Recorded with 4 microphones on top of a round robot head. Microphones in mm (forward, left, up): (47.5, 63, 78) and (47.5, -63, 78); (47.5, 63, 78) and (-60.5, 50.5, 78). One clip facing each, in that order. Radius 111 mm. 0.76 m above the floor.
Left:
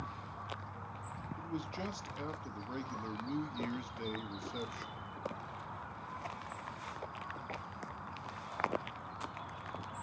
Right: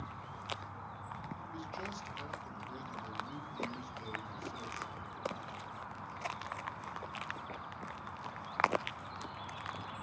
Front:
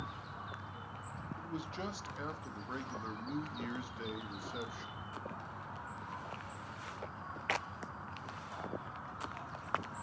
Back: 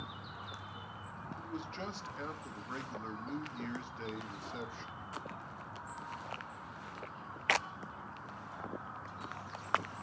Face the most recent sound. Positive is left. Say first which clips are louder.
# left 3 dB, front 1 dB
turn(degrees=90)